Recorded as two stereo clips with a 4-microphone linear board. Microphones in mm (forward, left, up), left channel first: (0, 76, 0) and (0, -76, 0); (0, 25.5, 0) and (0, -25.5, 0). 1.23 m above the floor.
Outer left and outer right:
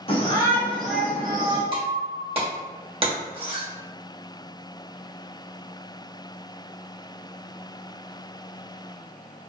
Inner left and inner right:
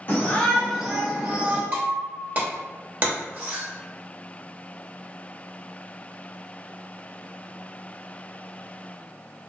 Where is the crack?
No crack in this recording.